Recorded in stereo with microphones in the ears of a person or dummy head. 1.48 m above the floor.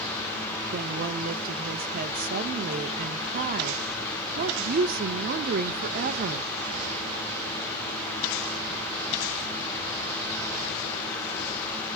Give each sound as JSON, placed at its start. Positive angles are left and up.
{"t": 0.7, "sound": "a woman speaking", "side_deg": -45, "distance_m": 1.1}